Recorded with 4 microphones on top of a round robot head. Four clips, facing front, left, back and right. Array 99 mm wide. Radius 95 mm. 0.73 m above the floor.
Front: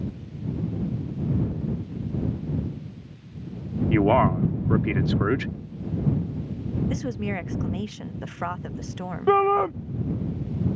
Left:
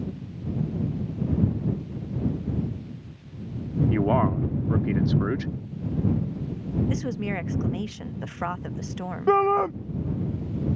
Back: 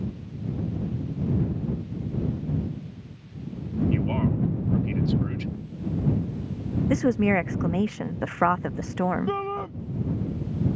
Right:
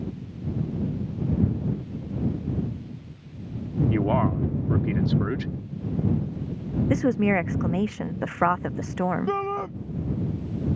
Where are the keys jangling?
I don't hear keys jangling.